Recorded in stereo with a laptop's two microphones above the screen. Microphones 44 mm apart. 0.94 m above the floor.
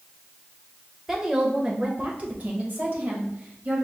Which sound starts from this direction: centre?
A woman speaking, at 1.1 s.